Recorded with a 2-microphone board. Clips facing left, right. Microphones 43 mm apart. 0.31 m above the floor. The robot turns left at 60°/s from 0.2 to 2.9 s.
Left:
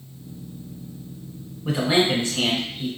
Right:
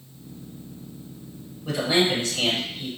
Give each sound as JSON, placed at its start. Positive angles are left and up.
{"t": 1.6, "sound": "a man speaking", "side_deg": 20, "distance_m": 1.2}